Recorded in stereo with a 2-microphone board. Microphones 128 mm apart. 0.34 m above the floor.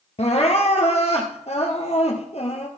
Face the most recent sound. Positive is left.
turn(degrees=55)  # may be behind; listen again after turning